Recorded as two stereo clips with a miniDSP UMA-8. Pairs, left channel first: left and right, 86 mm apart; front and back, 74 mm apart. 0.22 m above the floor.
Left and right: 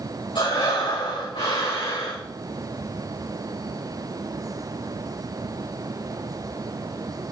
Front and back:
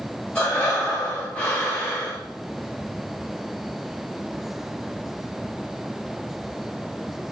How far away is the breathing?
About 7 m.